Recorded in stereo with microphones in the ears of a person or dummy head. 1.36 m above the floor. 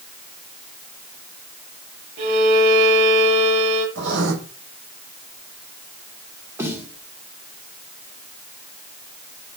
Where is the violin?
40° right (ahead or behind), 8.5 m.